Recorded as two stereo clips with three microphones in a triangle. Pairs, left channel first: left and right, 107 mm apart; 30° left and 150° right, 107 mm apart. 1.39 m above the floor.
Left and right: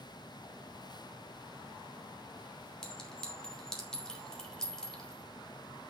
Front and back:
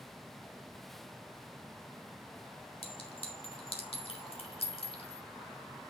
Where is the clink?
5° left, 2.5 m.